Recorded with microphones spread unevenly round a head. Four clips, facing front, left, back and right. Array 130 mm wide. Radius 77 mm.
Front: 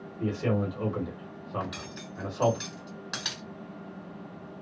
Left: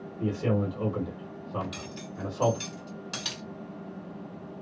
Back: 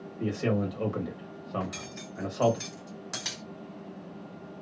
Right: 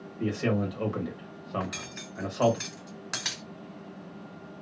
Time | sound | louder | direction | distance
0.2 | a man speaking | even, even | 165° left | 1.0 m
1.6 | cutlery clinking | even, even | 45° right | 1.9 m